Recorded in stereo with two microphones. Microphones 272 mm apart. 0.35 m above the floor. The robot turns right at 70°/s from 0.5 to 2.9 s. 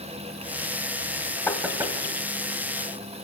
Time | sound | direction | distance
1.5 | knocking | 10° left (ahead or behind) | 1.6 m